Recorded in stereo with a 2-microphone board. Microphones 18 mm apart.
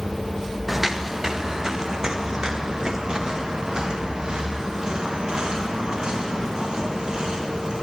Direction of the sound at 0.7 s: 10° right (ahead or behind).